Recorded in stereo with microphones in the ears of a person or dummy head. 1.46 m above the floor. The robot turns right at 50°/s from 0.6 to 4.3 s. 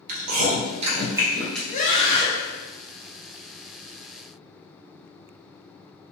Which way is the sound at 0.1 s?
45° right (ahead or behind).